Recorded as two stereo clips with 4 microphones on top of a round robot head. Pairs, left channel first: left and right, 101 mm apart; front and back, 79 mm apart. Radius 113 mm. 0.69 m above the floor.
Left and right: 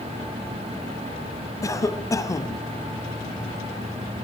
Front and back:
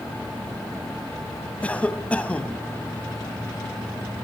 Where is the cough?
65° left, 1.2 m.